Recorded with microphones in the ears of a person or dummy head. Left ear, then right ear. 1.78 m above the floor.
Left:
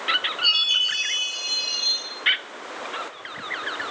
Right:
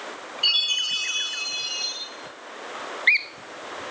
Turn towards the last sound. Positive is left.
turn(degrees=10)  # may be behind; listen again after turning